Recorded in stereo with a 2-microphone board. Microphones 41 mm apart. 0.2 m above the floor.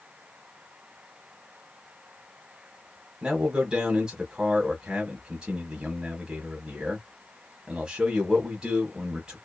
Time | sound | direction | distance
3.2 | a man speaking | 20° right (ahead or behind) | 1.0 m